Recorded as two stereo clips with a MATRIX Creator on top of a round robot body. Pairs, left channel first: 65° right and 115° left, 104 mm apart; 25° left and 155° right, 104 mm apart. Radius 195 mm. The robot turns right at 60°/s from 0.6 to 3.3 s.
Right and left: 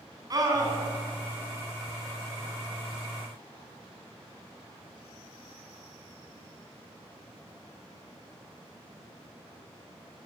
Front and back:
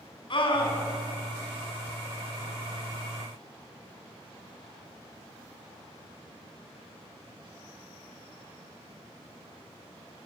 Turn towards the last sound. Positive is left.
turn(degrees=-135)